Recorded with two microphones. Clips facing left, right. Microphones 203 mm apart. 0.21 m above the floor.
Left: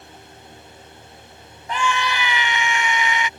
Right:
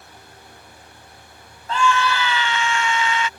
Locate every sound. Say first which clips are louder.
1.7 s a scream: right 3 dB; 20° left (ahead or behind)